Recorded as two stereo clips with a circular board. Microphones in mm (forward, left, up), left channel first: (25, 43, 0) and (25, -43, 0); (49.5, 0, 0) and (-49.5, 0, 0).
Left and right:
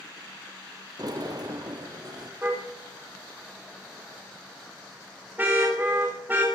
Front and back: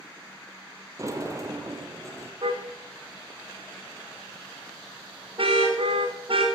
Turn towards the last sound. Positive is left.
turn(degrees=-155)